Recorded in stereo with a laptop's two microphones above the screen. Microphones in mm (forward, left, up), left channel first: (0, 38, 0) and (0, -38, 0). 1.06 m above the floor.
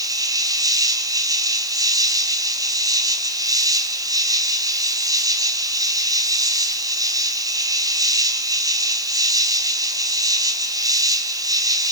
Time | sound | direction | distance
0.0 | an insect | 50° right (ahead or behind) | 3 m